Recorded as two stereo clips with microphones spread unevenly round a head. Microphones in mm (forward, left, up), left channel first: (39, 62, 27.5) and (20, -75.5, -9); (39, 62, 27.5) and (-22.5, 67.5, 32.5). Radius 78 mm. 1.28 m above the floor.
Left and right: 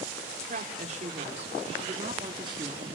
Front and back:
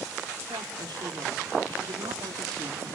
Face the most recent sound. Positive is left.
turn(degrees=-165)